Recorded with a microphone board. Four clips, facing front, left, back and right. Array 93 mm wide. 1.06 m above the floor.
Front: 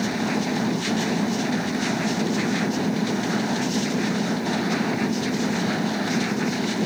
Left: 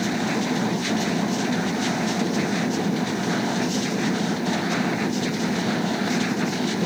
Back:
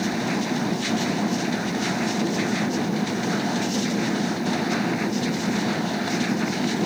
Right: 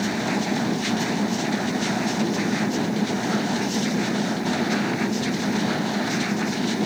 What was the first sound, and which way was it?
Only background noise.